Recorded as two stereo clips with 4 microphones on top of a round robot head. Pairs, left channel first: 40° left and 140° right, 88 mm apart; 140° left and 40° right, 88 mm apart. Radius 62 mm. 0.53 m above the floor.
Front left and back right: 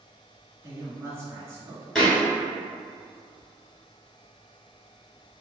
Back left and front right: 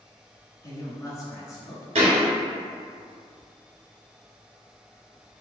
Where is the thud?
45° right, 1.2 m.